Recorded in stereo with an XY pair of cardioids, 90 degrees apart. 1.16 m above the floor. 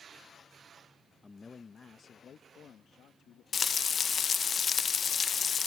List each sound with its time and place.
1.2 s a man speaking: 25° left; by 3.4 s 80° left
3.5 s frying: 50° left